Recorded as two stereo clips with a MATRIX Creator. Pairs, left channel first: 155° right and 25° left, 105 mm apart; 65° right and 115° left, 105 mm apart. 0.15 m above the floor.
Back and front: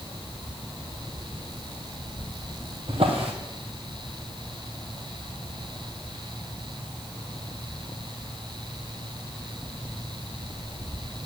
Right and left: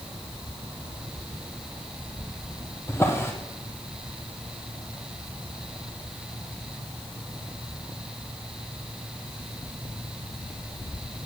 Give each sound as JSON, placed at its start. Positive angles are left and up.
{"t": 2.9, "sound": "a drawer", "azimuth_deg": 0, "distance_m": 1.5}